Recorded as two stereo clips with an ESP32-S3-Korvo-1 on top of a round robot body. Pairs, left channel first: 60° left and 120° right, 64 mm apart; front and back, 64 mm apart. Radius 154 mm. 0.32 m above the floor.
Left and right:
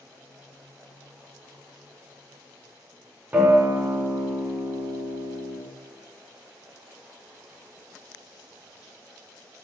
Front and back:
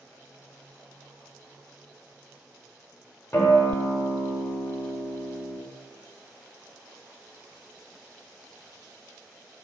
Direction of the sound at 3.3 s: 50° right.